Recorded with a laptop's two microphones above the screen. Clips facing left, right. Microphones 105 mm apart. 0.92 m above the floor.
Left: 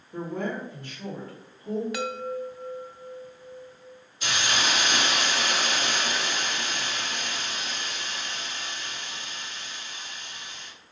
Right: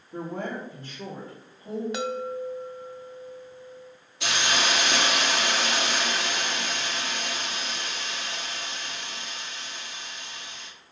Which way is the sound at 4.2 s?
75° right (ahead or behind).